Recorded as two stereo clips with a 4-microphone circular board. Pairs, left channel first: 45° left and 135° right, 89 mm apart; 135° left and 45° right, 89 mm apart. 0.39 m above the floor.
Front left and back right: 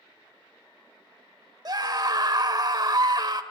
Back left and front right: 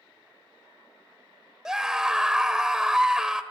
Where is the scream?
125° right, 1.4 m.